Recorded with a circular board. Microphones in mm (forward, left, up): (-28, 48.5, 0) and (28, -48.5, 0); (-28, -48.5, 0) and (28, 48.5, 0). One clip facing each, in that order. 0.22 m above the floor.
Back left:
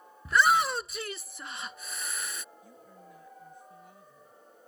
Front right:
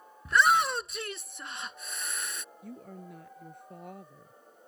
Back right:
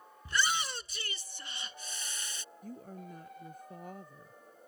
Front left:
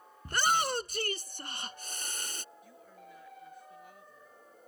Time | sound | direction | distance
0.2 | a shout | 30° left | ?
2.6 | a woman speaking | 80° right | ?